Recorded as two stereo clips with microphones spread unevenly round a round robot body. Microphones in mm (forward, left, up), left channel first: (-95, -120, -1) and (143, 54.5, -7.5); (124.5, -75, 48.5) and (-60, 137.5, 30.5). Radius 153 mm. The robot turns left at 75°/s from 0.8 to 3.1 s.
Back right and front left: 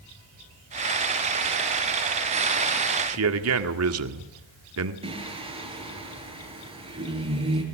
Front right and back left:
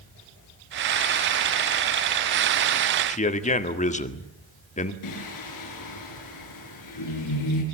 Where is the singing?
35° right, 7 m.